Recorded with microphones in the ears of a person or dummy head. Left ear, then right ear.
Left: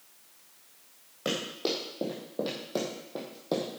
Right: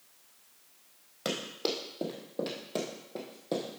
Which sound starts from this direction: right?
Running footsteps, at 1.2 s.